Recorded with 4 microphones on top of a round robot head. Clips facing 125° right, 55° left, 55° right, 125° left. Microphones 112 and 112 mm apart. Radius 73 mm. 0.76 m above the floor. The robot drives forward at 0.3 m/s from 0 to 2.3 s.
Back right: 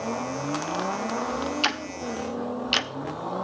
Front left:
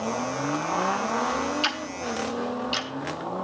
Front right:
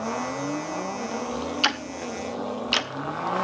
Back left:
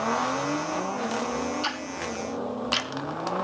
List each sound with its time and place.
1.6 s ticking: 80° right, 0.7 m; by 2.9 s 95° right, 0.7 m